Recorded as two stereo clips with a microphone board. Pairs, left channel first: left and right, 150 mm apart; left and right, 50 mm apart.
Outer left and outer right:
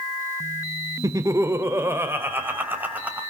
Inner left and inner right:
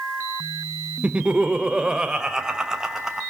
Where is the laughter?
20° right (ahead or behind), 1.4 m; by 3.2 s 10° right (ahead or behind), 3 m.